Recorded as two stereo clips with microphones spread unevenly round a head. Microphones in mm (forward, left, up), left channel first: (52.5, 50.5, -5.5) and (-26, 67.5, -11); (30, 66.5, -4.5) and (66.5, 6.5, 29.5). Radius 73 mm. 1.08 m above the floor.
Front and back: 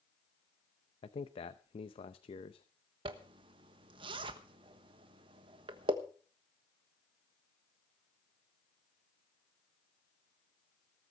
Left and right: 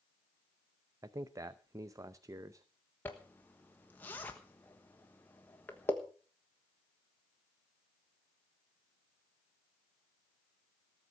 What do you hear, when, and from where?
1.0 s a man speaking: 10° right, 0.7 m
3.0 s a zipper: straight behind, 1.2 m